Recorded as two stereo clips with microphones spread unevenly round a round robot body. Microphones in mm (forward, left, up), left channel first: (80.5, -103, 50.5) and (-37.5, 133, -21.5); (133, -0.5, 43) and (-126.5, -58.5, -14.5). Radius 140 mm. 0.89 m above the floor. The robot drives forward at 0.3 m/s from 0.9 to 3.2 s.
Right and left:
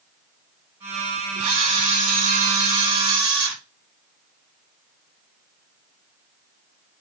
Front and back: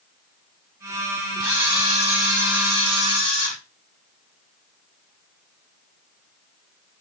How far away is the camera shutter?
About 2.5 m.